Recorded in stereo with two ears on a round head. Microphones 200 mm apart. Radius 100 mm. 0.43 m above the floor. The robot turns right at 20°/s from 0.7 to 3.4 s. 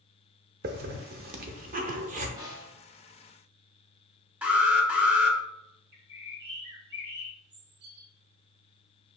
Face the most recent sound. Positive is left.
turn(degrees=-50)  # may be behind; listen again after turning